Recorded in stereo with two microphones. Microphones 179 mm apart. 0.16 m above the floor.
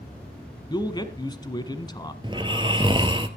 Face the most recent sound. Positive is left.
turn(degrees=-25)  # may be behind; listen again after turning